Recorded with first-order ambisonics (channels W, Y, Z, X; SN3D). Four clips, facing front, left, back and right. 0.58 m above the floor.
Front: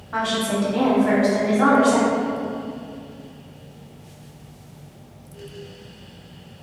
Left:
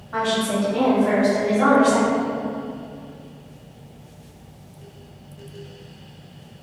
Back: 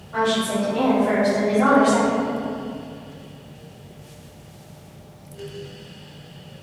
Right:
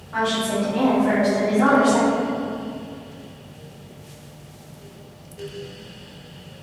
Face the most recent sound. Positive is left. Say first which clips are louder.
# even, back 1 dB
turn(degrees=25)